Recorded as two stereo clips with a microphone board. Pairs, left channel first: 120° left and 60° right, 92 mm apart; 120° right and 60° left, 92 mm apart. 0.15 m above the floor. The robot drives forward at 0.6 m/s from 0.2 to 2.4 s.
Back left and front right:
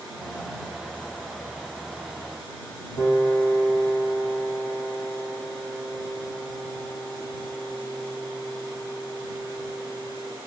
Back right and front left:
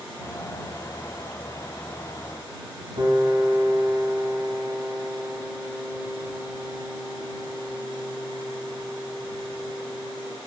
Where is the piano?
65° left, 3 m.